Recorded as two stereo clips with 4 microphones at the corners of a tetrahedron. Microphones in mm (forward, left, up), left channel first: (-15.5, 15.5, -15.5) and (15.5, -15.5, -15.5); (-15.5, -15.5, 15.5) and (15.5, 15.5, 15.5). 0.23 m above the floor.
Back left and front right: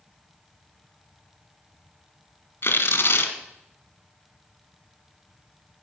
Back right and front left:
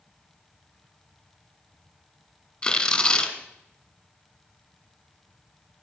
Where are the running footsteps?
I don't hear running footsteps.